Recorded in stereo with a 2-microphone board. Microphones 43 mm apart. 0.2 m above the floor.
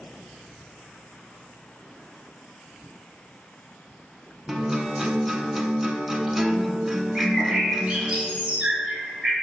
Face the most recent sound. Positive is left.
turn(degrees=-20)  # may be behind; listen again after turning